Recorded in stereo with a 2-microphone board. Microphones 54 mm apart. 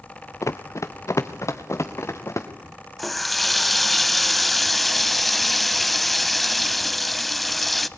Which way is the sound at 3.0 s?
Centre (ahead or behind).